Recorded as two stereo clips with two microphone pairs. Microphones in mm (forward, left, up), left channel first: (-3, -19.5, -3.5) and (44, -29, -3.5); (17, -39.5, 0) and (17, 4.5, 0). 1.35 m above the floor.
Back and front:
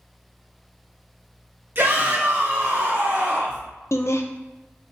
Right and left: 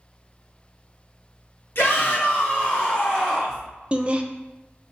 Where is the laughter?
155° left, 0.6 m.